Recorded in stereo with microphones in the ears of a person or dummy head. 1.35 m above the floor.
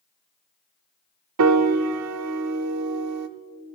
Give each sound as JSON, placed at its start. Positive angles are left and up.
{"t": 1.4, "sound": "a piano", "side_deg": -75, "distance_m": 0.6}